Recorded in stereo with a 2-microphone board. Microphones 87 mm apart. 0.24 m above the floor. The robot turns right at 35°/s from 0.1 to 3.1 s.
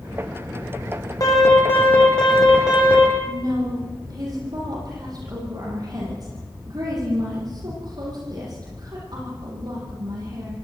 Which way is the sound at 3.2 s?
50° right (ahead or behind).